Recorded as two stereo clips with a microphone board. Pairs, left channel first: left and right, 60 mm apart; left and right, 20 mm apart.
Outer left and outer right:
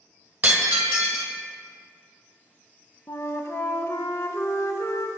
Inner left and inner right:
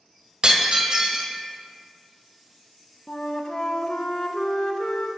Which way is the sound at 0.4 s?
30° right (ahead or behind).